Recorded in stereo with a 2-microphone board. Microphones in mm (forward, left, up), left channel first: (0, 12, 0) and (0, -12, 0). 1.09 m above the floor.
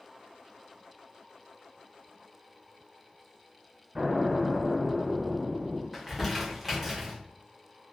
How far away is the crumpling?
About 0.8 m.